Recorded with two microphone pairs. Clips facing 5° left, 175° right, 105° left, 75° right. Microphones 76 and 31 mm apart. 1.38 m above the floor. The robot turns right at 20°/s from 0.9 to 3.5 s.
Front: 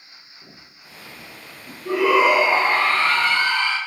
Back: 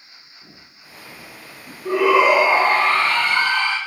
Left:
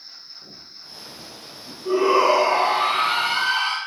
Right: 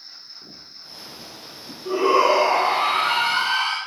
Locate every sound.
0.4 s footsteps: 70° right, 1.6 m; by 1.8 s 175° right, 1.4 m
1.9 s a shout: 175° right, 1.1 m; by 3.8 s 145° right, 1.1 m